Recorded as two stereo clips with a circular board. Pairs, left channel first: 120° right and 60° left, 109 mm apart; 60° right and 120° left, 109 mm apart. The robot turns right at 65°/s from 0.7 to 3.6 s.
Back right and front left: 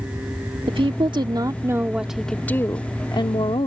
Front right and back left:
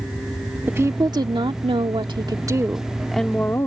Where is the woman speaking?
55° left; by 3.7 s 115° right.